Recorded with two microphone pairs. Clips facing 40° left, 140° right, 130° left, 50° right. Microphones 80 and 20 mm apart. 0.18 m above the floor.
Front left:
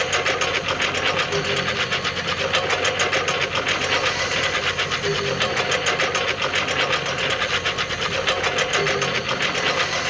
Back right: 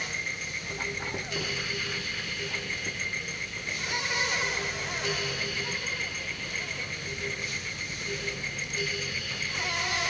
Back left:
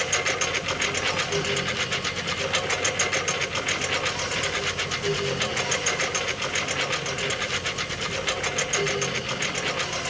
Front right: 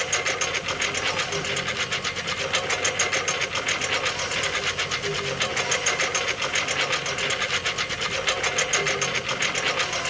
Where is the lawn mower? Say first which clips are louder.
Front left 14 dB, even; 40° left; by 10.1 s 25° left.